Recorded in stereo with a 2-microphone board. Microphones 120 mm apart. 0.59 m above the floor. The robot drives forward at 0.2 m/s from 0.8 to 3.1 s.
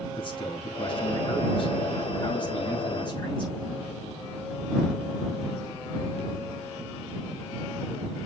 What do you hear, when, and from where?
0.1 s a man speaking: 45° left (ahead or behind), 6 m; by 3.9 s 40° left (ahead or behind), 6.5 m